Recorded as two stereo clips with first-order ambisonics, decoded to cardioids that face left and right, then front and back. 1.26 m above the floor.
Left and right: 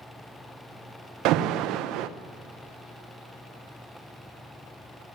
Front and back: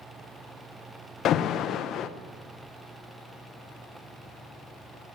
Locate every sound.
1.2 s an alarm: 55° right, 0.7 m